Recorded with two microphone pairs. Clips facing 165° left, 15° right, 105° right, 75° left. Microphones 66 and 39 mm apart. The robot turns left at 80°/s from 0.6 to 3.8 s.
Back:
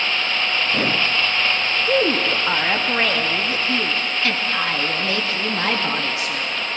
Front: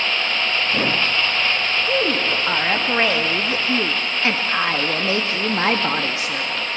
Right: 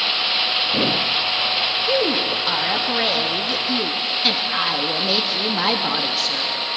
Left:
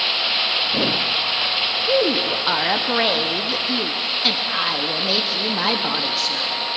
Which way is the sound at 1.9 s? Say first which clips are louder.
Back 3 dB, left 3 dB; 140° left.